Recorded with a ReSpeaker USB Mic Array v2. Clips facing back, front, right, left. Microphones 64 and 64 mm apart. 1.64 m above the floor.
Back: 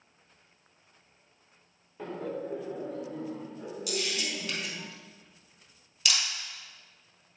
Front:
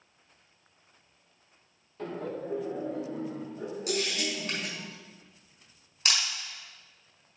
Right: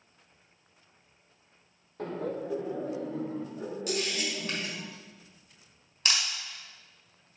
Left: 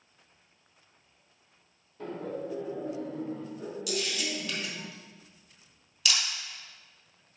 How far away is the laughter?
About 1.4 m.